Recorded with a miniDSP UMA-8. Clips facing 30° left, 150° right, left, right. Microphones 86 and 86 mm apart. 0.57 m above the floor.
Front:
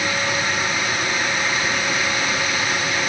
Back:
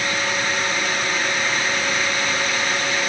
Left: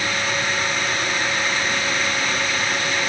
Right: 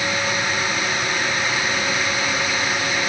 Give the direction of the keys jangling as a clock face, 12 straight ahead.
No keys jangling in this recording.